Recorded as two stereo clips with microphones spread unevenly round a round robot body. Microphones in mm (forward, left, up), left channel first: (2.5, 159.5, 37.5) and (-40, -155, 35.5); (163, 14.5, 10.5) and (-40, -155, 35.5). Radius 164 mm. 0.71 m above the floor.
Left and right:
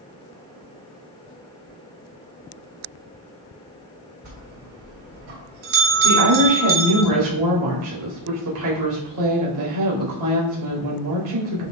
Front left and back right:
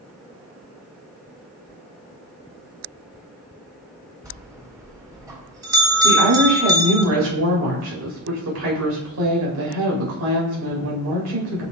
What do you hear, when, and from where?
4.2 s a bell: 65° right, 2.5 m
6.0 s a woman speaking: 120° right, 3.5 m